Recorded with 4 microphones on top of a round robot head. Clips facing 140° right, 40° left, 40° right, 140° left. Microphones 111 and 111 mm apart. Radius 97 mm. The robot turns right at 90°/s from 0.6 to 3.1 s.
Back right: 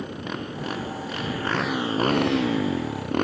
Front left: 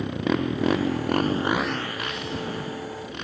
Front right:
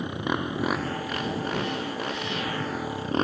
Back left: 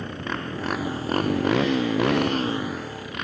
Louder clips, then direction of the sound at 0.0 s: Front left 7 dB, front right 2 dB; 35° left.